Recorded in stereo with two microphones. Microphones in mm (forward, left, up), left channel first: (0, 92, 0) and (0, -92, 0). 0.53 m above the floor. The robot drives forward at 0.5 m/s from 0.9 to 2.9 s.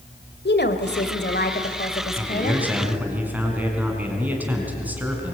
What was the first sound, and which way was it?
A woman speaking, 65° left (ahead or behind).